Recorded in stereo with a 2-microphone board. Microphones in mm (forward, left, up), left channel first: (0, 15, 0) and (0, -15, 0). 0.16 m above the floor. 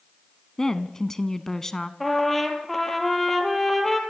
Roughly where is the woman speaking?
Centre.